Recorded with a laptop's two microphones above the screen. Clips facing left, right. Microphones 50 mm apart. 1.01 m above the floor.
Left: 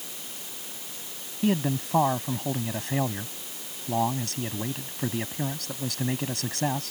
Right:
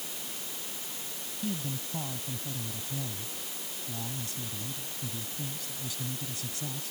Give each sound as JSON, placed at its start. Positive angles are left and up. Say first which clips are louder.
{"t": 1.4, "sound": "a man speaking", "louder": "left 11 dB", "side_deg": 65}